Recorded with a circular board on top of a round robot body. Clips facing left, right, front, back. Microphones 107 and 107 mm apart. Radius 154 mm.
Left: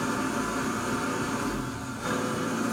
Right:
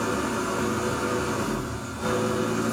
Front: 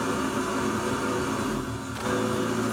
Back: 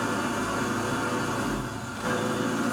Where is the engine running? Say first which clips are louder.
Right 2 dB, front 1 dB; 70° right, 2 m.